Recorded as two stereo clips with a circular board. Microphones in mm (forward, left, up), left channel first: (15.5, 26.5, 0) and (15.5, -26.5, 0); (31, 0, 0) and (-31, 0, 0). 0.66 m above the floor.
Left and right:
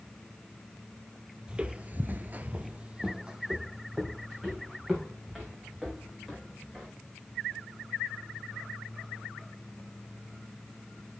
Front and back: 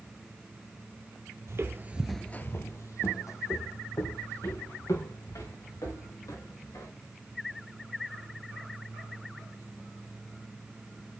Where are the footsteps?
160° right, 1.2 m; by 6.9 s 5° right, 7.5 m.